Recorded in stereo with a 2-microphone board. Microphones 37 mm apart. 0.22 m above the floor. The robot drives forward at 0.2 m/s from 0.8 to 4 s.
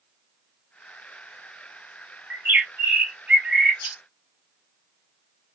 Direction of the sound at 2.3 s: 60° right (ahead or behind).